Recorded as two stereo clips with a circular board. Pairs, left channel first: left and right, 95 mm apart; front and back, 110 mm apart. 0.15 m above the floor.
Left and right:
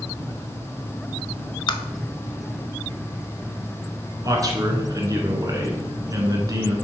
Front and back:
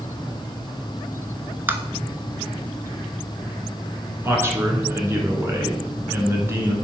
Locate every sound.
1.7 s tapping: 110° left, 0.6 m
4.2 s a man speaking: 120° right, 1.4 m